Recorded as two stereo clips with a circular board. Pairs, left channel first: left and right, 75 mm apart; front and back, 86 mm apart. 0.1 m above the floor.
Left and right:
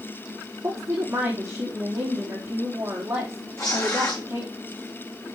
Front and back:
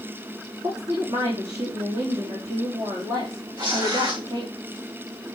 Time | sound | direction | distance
0.6 | a woman speaking | 150° right | 4.5 m
3.6 | tearing paper | 140° left | 3.5 m